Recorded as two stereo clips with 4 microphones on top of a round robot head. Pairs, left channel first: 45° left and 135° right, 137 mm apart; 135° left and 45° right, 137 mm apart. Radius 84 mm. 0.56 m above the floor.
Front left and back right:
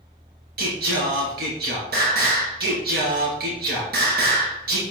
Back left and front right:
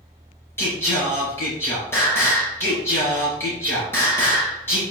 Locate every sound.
0.6 s singing: 150° right, 4 m